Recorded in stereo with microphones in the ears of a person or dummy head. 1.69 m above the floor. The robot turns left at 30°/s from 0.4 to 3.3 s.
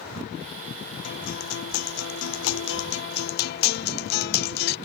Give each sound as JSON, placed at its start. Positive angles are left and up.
{"t": 1.0, "sound": "a guitar", "azimuth_deg": 130}